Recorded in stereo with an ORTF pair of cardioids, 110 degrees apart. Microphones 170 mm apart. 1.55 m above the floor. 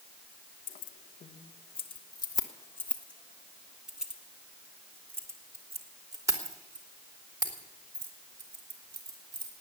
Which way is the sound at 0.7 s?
60° left.